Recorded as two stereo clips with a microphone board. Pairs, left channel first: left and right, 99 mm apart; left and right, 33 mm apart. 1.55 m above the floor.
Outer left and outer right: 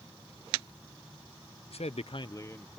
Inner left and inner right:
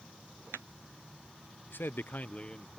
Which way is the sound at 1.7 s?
70° left (ahead or behind).